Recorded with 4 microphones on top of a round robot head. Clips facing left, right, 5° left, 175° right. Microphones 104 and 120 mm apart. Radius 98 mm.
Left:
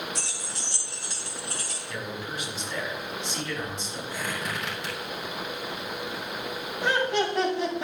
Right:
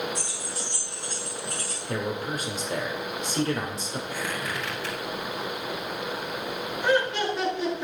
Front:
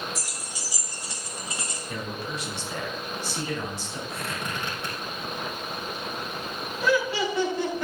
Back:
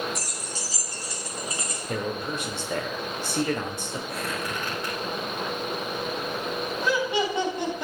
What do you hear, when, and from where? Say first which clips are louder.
0.1 s keys jangling: right 3 dB, back 3 dB; 95° left, 1.8 m; by 1.8 s 65° left, 3.5 m
1.9 s a man speaking: right 6 dB, back 5 dB; 140° right, 1.6 m
4.1 s a squeak: left 1 dB, back 2 dB; 70° left, 4.5 m
6.8 s laughter: right 1 dB, front 2 dB; 115° left, 4.5 m